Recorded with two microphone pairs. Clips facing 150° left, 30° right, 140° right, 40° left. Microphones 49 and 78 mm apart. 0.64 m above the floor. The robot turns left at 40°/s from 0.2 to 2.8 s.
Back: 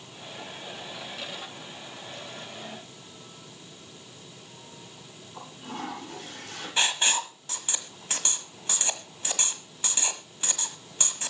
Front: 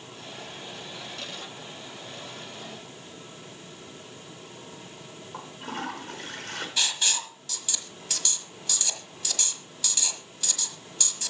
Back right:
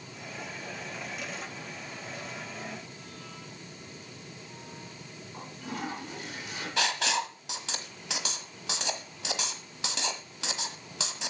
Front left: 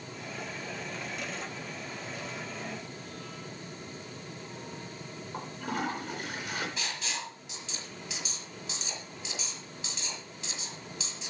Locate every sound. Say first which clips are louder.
5.3 s a toilet flushing: front 2 dB, front left 4 dB; 5° left, 4.5 m
6.8 s writing: back 5 dB, back right 8 dB; 155° right, 1.3 m